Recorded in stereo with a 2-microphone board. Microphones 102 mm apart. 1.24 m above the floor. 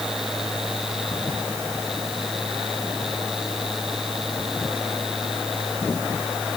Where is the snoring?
No snoring in this recording.